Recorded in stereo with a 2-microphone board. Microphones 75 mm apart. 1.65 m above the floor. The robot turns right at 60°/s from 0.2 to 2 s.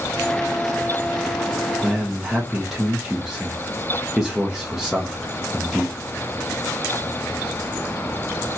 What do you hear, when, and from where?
1.8 s a man speaking: centre (ahead or behind), 0.7 m; by 6.0 s 5° right (ahead or behind), 0.7 m